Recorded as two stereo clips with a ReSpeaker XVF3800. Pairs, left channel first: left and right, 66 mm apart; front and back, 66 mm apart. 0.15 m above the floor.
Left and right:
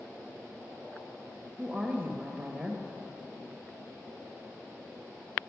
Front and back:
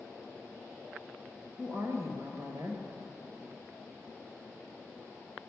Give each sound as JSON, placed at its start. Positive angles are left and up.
{"t": 1.6, "sound": "a woman speaking", "azimuth_deg": 175, "distance_m": 2.0}